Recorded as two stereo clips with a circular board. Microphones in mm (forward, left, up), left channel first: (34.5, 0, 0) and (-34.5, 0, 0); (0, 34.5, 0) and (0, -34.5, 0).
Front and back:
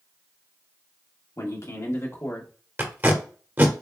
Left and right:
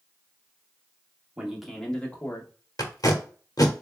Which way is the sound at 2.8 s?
120° left.